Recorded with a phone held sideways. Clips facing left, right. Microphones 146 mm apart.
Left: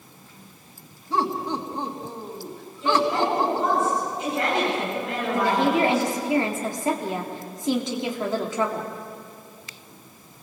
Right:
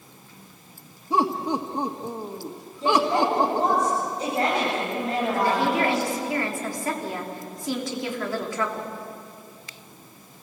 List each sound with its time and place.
1.1 s laughter: 30° right (ahead or behind), 1.9 m
2.8 s a woman speaking: 40° right (ahead or behind), 8 m
5.3 s a woman speaking: 25° left (ahead or behind), 3.5 m